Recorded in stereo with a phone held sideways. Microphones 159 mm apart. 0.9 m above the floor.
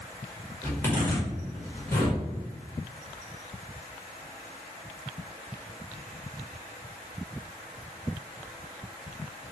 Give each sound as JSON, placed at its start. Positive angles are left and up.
{"t": 0.6, "sound": "a zipper", "side_deg": 15, "distance_m": 1.8}